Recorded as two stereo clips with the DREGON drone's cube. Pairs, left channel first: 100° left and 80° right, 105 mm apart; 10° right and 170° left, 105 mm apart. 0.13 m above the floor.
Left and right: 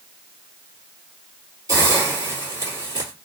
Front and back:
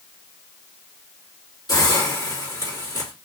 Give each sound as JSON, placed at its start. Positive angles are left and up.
{"t": 1.7, "sound": "a hiss", "azimuth_deg": -40, "distance_m": 2.0}